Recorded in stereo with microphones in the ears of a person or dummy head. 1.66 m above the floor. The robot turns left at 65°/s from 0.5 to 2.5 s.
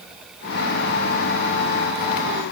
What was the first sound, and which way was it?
Only background noise.